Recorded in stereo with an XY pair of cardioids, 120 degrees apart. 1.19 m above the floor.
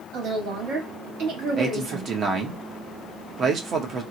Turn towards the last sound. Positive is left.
turn(degrees=-45)